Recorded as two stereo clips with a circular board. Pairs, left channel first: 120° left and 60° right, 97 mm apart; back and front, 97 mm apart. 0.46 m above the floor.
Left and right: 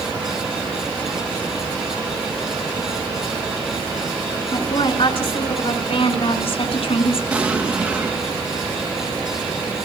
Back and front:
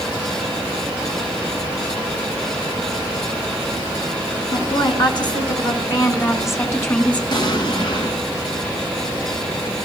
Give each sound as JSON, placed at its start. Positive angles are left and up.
{"t": 4.5, "sound": "a woman speaking", "azimuth_deg": 145, "distance_m": 5.0}
{"t": 7.3, "sound": "an explosion", "azimuth_deg": -140, "distance_m": 3.5}